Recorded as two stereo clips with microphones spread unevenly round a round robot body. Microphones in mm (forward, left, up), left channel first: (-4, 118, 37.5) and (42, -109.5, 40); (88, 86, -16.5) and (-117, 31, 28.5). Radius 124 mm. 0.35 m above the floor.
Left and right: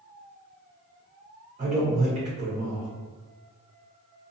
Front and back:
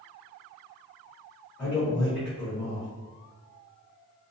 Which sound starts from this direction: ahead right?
A man speaking, at 1.6 s.